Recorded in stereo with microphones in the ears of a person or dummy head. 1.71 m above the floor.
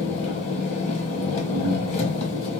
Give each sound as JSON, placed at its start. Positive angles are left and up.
{"t": 0.0, "sound": "an engine running", "side_deg": 40, "distance_m": 1.3}